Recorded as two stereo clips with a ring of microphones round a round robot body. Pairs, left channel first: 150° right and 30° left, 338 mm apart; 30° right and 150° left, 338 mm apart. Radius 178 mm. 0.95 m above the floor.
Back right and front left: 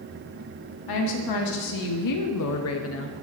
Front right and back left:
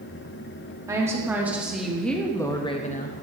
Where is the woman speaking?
130° right, 1.8 m; by 3.1 s 90° right, 0.8 m.